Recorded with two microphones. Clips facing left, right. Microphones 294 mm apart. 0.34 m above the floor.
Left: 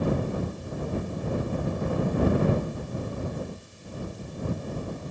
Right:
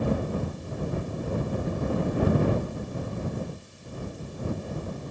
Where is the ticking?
No ticking in this recording.